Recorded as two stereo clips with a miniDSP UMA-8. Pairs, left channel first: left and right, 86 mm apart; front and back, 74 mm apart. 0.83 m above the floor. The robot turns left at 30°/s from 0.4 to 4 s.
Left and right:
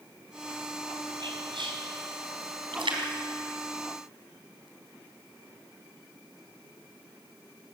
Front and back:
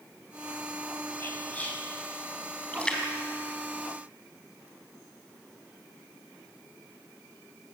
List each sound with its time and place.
1.2 s whispering: 55° right, 6.5 m; by 1.8 s 75° right, 6.5 m
2.7 s a splash: 75° right, 4 m; by 4.7 s 110° right, 4 m